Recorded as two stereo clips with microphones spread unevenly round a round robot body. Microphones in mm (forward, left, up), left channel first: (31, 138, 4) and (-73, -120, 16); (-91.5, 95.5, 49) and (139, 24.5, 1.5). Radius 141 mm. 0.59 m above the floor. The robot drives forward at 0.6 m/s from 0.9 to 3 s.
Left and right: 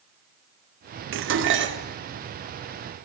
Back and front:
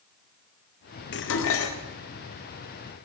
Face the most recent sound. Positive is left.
turn(degrees=-170)